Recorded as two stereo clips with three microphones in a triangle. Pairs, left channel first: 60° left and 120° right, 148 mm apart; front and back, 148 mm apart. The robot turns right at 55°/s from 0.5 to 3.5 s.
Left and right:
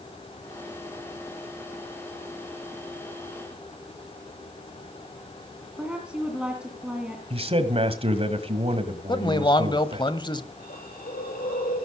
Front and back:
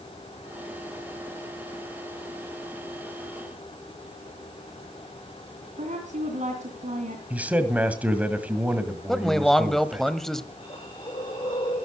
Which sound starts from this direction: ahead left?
A hiss, at 10.6 s.